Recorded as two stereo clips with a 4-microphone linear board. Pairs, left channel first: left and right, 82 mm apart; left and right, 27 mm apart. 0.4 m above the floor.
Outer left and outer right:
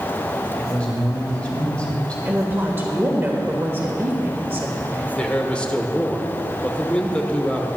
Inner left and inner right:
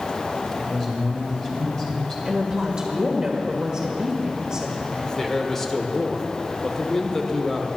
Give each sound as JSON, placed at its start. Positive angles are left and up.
{"t": 0.6, "sound": "a man speaking", "side_deg": 15, "distance_m": 2.5}
{"t": 2.2, "sound": "a woman speaking", "side_deg": -25, "distance_m": 1.3}
{"t": 5.2, "sound": "a man speaking", "side_deg": 15, "distance_m": 1.0}